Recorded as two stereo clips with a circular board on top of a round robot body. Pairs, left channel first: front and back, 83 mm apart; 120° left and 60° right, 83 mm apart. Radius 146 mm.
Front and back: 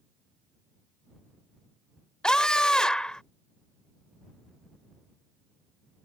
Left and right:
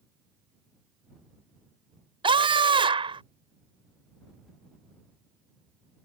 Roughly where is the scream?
Right.